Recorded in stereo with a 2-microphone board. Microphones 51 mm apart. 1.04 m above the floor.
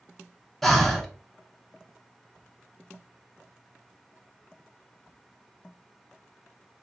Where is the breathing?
5° left (ahead or behind), 0.6 m.